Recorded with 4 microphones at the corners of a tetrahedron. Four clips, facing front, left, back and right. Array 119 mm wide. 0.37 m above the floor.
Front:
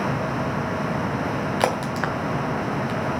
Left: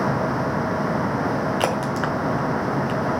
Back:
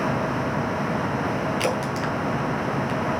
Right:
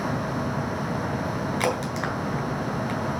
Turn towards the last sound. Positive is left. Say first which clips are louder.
# left 4 dB, front 2 dB
turn(degrees=25)